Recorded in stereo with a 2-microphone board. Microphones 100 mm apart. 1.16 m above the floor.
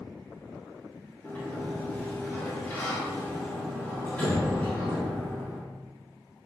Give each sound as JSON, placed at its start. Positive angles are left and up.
{"t": 1.2, "sound": "a sliding door", "side_deg": 15, "distance_m": 1.3}